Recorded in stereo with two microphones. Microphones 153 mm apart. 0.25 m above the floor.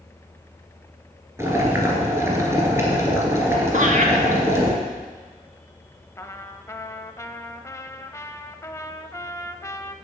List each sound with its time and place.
1.4 s boiling: 15° right (ahead or behind), 2 m
3.7 s laughter: 55° right (ahead or behind), 2.0 m
6.2 s a trumpet: 20° left (ahead or behind), 0.6 m